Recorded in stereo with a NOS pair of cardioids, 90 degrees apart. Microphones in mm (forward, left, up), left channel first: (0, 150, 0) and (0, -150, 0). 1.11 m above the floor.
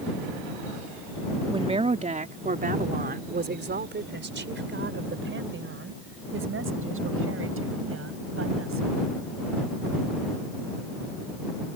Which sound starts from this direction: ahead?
A woman speaking, at 1.5 s.